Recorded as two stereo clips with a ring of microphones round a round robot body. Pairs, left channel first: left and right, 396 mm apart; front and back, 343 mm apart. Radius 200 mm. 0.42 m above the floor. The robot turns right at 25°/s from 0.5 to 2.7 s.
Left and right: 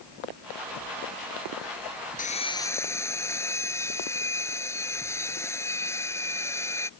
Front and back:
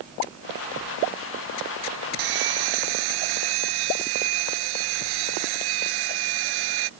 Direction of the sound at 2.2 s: 160° left.